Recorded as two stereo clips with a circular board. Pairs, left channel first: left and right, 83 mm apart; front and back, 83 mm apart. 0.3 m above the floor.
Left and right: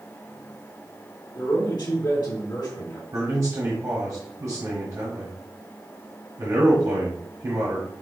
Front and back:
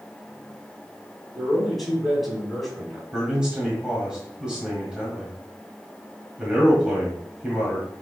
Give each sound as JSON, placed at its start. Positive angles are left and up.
{"t": 1.4, "sound": "a man speaking", "azimuth_deg": 90, "distance_m": 2.0}
{"t": 3.1, "sound": "a man speaking", "azimuth_deg": -105, "distance_m": 1.3}